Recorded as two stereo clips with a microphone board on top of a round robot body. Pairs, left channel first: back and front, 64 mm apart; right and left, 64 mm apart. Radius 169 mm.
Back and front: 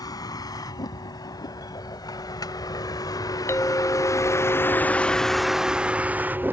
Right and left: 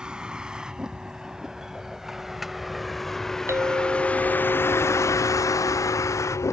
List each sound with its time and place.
0.0 s a vehicle: 165° left; by 6.5 s 55° right
3.5 s a clink: 130° left